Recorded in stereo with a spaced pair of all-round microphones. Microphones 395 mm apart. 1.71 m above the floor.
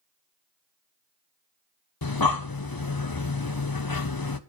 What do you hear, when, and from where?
2.0 s breathing: 55° left (ahead or behind), 0.9 m